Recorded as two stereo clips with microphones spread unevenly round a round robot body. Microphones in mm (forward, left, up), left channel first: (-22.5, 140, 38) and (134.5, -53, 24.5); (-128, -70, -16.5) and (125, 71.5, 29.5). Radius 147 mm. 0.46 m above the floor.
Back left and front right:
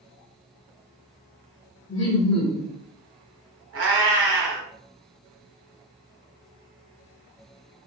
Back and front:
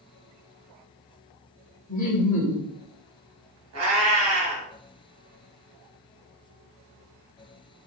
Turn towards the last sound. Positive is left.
turn(degrees=-15)